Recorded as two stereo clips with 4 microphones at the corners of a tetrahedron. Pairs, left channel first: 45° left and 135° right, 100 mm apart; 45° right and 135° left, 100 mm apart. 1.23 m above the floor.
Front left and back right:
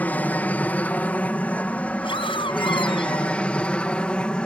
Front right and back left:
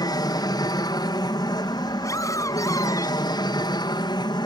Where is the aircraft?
25° right; by 4.5 s 30° right.